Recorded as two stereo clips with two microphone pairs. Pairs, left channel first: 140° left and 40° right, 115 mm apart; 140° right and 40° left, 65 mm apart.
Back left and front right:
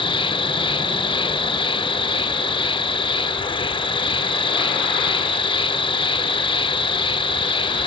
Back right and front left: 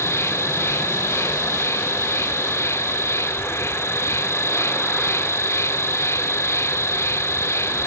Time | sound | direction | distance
0.0 | an insect | 175° left | 0.8 m